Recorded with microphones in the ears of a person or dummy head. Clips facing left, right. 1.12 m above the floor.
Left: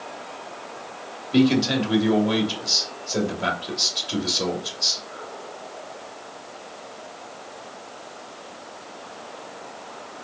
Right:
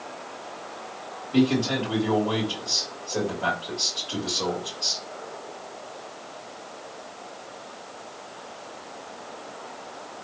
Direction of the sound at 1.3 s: 25° left (ahead or behind).